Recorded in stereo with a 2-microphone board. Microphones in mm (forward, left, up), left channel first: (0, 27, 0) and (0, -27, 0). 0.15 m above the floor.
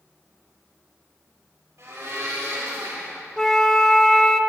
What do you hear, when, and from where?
1.8 s a blender: 60° right (ahead or behind), 4 m
3.4 s a flute: 10° left (ahead or behind), 0.6 m